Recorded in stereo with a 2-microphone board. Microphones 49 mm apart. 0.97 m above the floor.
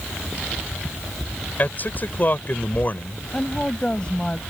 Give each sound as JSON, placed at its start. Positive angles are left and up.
{"t": 1.6, "sound": "a man speaking", "side_deg": 40}
{"t": 3.3, "sound": "a woman speaking", "side_deg": 20}